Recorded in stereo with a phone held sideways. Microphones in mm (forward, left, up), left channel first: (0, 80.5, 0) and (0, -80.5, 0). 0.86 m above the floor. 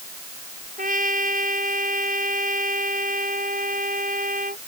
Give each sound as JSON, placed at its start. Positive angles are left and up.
{"t": 0.8, "sound": "a trumpet", "side_deg": -55}